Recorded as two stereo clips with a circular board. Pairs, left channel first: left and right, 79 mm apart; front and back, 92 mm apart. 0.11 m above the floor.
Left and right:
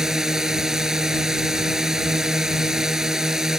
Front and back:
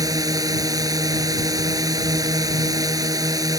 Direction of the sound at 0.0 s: 170° right.